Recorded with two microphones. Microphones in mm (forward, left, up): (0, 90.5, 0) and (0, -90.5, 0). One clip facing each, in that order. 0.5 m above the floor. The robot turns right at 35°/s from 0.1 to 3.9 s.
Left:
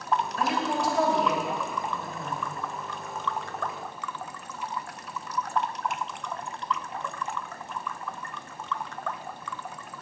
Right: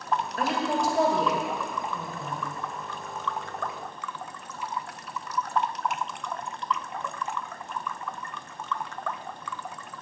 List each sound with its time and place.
0.4 s a woman speaking: 65° right, 1.8 m; by 2.4 s 5° left, 1.8 m